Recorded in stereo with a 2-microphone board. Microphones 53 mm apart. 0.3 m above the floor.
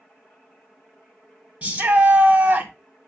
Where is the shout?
30° right (ahead or behind), 1.9 m.